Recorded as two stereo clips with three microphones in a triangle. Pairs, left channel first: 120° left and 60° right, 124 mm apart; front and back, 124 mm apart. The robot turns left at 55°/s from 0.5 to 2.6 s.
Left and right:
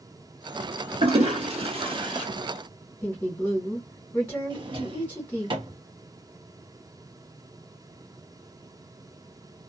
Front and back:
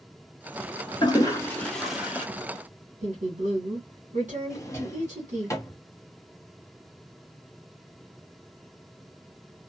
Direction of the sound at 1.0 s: 45° right.